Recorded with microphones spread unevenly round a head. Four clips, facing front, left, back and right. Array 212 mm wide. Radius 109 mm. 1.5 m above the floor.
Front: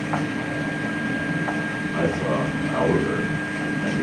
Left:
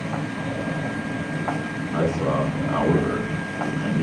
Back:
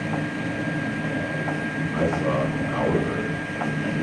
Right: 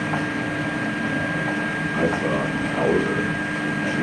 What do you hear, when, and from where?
1.9 s a man speaking: 60° left, 6.5 m